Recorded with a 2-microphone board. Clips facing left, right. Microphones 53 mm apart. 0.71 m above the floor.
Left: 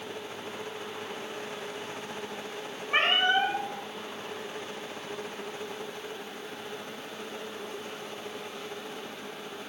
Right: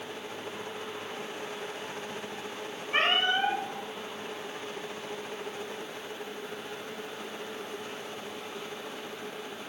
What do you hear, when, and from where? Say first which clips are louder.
2.9 s a cat meowing: left 2 dB; 30° left (ahead or behind), 0.9 m